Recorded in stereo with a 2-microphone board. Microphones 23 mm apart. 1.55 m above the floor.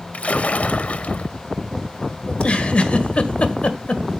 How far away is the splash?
About 0.7 m.